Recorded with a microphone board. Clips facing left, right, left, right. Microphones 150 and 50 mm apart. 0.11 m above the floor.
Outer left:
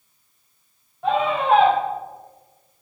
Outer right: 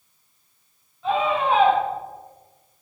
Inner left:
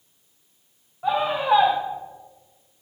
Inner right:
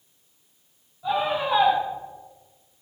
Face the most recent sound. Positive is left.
turn(degrees=60)  # may be behind; listen again after turning